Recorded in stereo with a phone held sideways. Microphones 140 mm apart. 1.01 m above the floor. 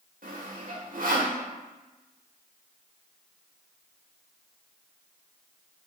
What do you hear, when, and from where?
0.2 s sawing: 70° right (ahead or behind), 1.2 m